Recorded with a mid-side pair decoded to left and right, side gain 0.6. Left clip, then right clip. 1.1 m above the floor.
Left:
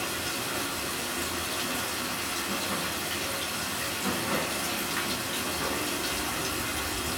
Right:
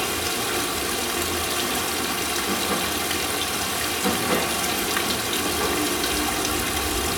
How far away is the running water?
About 0.8 m.